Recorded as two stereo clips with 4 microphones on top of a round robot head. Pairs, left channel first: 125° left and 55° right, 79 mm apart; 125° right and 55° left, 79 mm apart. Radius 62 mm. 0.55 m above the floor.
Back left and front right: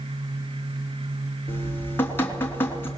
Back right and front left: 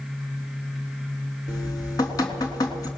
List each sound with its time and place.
1.5 s dripping: 170° right, 3 m